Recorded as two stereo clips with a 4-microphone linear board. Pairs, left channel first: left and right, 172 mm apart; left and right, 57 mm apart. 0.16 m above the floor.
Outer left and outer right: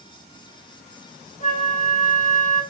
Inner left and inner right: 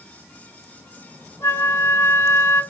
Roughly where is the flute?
Left.